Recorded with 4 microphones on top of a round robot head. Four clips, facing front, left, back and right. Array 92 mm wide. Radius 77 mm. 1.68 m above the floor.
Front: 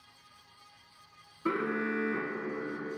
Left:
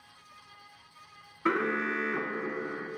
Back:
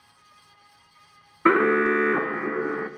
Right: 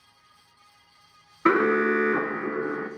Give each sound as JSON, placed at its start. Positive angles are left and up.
{"t": 1.4, "sound": "an alarm", "azimuth_deg": -150, "distance_m": 0.5}